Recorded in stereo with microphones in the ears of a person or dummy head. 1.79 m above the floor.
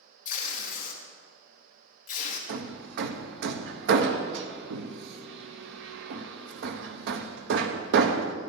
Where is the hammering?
65° right (ahead or behind), 0.8 m.